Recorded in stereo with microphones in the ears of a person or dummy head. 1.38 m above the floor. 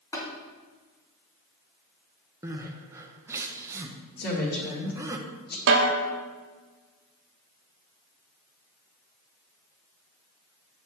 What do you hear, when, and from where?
0.1 s tapping: 20° left (ahead or behind), 3 m
2.4 s crying: 15° right (ahead or behind), 0.8 m
4.2 s a woman speaking: 45° left (ahead or behind), 1.9 m
5.7 s a snare drum: 65° right (ahead or behind), 1.1 m